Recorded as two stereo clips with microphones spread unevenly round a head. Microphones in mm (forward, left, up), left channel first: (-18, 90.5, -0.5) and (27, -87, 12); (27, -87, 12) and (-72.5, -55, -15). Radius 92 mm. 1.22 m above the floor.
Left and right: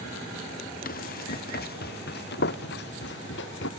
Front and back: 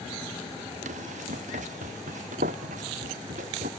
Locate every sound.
0.8 s running footsteps: 150° left; by 3.7 s 135° left